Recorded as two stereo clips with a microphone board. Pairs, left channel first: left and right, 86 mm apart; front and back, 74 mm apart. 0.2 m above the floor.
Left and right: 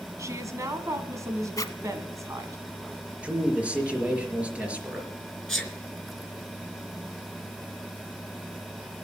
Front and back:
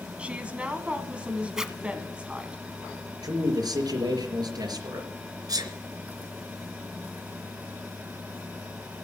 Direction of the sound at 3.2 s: 165° right.